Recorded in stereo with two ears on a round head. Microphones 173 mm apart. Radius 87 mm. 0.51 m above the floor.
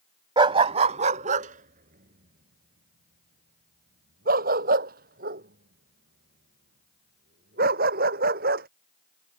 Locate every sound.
0.4 s a dog barking: 25° right (ahead or behind); by 8.7 s 50° right (ahead or behind)